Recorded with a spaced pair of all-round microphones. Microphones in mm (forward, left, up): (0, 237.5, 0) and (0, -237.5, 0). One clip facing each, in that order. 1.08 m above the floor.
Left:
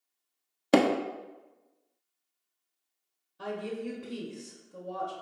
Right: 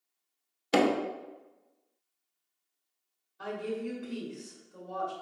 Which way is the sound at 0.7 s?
65° left (ahead or behind).